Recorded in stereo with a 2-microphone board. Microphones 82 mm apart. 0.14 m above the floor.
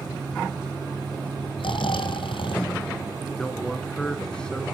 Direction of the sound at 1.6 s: 85° left.